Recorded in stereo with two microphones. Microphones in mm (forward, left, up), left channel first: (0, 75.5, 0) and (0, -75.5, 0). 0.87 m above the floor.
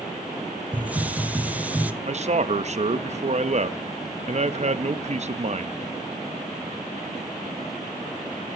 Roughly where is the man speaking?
Right.